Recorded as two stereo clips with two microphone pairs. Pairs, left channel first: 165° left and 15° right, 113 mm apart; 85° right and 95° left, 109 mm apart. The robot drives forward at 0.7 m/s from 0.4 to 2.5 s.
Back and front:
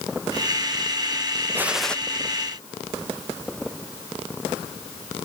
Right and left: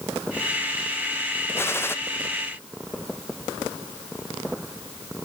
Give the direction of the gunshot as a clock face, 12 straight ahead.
2 o'clock.